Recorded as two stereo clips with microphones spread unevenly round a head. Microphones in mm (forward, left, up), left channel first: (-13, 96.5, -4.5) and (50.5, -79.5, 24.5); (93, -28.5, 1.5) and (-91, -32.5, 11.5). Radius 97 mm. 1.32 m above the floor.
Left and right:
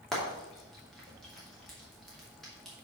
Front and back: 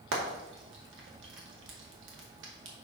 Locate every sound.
0.1 s frying: 160° right, 2.5 m